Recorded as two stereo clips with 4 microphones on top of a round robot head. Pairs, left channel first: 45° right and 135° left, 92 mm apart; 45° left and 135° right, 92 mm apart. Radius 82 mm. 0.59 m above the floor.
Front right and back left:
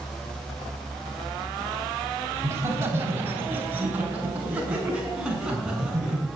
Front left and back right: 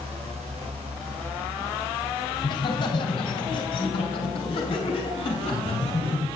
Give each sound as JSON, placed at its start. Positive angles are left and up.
{"t": 2.4, "sound": "laughter", "azimuth_deg": 80, "distance_m": 3.0}